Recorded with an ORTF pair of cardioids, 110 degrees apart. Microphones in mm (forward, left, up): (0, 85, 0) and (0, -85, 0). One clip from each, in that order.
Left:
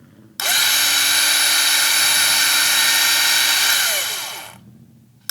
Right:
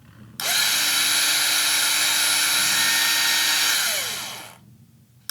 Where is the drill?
30° left, 1.0 m.